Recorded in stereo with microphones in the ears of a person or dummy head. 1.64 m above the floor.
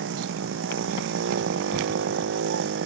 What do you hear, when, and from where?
0.0 s a motorcycle: 85° right